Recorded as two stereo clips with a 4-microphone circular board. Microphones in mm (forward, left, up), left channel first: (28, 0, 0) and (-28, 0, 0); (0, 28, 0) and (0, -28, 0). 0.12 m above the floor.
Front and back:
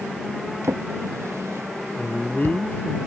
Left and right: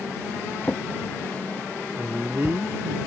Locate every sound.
0.6 s a drawer: 150° left
2.0 s a man speaking: 50° right